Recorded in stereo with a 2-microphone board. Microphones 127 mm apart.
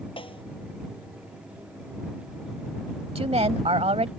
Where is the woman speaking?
55° right (ahead or behind).